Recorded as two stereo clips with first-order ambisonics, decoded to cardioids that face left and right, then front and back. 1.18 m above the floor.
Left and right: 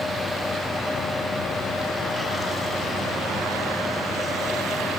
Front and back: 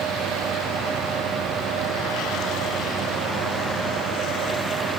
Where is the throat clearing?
I don't hear throat clearing.